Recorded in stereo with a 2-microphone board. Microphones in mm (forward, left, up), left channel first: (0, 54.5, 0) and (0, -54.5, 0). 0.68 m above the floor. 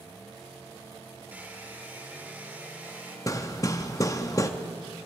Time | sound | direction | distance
1.3 | a hair dryer | 15° right (ahead or behind) | 1.2 m
3.3 | hammering | 30° left (ahead or behind) | 0.7 m